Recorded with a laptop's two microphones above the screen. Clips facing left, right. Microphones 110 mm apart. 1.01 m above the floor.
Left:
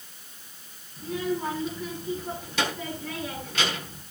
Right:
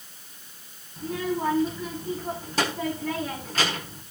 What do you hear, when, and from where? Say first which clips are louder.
1.0 s a child speaking: right 1 dB; 40° right (ahead or behind), 5.5 m